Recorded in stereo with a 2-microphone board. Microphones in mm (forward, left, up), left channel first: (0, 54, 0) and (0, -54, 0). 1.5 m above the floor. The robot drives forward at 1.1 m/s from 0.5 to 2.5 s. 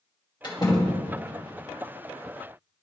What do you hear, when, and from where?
0.4 s a door slam: 45° left (ahead or behind), 2 m; by 1.1 s 35° left (ahead or behind), 2.5 m